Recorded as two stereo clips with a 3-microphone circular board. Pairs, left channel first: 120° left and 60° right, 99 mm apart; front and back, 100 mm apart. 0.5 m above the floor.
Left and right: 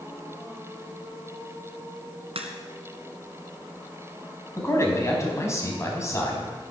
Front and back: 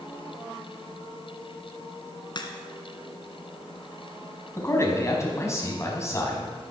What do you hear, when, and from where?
2.4 s a crack: 40° right, 2 m
4.6 s a man speaking: 60° left, 4.5 m